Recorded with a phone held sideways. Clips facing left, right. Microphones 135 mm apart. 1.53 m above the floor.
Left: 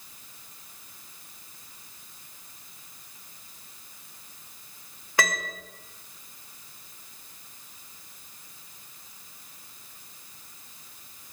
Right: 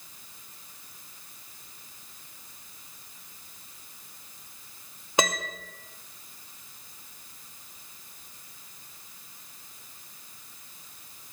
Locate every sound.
5.2 s a piano: 20° right (ahead or behind), 0.7 m